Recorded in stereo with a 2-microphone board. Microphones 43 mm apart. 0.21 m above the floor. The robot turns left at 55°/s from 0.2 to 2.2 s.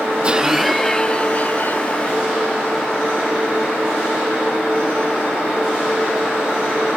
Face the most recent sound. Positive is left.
turn(degrees=100)